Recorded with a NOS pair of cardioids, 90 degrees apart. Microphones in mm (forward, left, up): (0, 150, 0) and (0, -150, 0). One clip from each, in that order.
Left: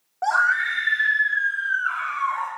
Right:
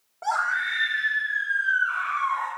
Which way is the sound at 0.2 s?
40° left.